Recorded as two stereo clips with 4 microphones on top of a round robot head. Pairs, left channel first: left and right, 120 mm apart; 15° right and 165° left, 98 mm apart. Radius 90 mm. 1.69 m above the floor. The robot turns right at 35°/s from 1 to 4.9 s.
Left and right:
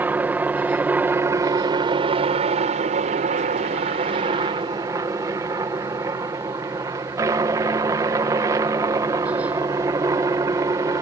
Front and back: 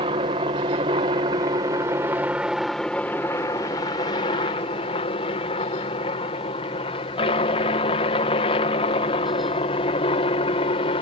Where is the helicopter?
165° right; by 11.0 s 25° right.